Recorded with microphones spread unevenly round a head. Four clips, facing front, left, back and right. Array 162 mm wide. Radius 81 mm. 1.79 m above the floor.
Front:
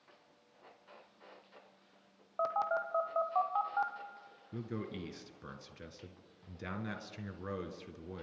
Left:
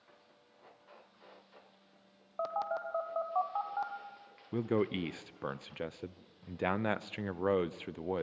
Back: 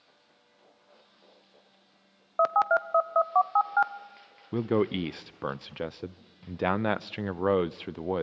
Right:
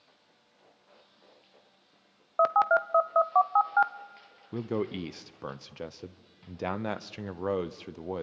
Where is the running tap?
I don't hear a running tap.